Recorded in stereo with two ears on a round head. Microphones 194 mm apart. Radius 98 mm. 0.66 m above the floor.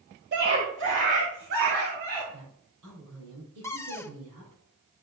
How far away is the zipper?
I don't hear a zipper.